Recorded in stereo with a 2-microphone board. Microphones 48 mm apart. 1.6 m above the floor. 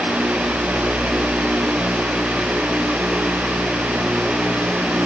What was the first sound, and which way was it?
Only background noise.